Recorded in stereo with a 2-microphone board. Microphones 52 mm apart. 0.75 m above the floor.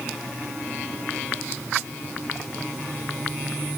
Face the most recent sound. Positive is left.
No sound to turn to.